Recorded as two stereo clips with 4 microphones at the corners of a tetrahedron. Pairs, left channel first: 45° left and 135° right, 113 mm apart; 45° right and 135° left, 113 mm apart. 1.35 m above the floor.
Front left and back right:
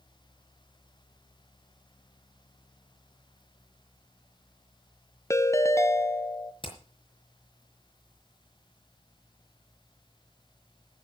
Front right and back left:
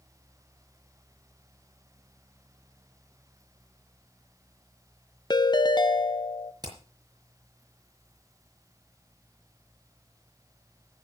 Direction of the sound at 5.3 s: 10° right.